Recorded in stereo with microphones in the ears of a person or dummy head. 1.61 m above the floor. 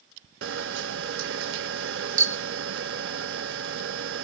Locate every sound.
0.4 s a camera shutter: 60° right (ahead or behind), 0.7 m